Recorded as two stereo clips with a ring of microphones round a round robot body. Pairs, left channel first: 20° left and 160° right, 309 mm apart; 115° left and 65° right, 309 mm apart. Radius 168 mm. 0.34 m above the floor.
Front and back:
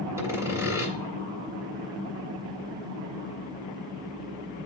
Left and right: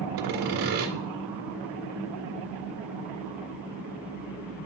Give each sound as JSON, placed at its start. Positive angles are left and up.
{"t": 0.2, "sound": "sawing", "azimuth_deg": -75, "distance_m": 1.6}